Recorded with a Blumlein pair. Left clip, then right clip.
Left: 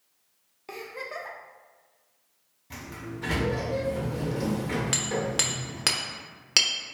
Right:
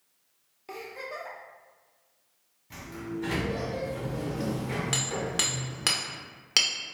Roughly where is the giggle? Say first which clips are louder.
Left 2 dB; ahead.